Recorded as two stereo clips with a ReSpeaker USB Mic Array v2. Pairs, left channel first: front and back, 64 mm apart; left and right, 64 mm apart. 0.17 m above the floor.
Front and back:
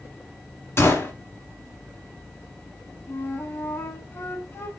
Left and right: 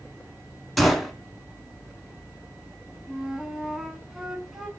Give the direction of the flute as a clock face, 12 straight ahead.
12 o'clock.